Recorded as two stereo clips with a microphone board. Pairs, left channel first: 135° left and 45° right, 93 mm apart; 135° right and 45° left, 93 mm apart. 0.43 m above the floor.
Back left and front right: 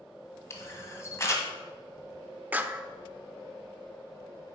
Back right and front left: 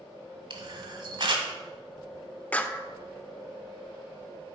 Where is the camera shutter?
80° left, 1.4 m.